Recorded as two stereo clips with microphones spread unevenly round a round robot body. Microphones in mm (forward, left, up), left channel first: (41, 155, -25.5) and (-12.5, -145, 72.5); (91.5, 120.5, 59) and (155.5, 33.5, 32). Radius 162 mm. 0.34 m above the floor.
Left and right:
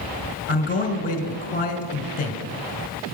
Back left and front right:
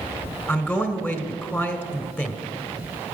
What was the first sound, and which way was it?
A man speaking, 40° left.